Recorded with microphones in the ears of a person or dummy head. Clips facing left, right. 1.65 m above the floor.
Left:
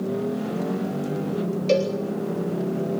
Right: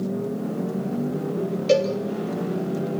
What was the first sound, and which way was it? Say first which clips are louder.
A cowbell: right 2 dB; 5° right (ahead or behind).